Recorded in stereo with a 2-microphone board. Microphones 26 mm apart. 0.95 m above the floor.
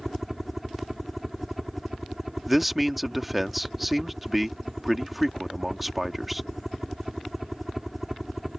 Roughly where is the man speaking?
Centre.